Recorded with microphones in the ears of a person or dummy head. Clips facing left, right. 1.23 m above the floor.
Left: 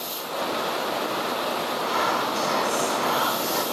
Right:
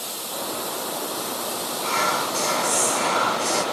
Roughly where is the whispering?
Right.